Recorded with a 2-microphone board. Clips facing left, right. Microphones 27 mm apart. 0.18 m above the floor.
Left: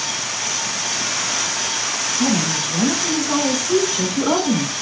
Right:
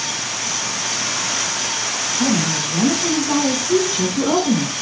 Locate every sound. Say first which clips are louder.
2.2 s a woman speaking: right 1 dB; 30° right (ahead or behind), 1.6 m; by 4.7 s 15° left (ahead or behind), 1.6 m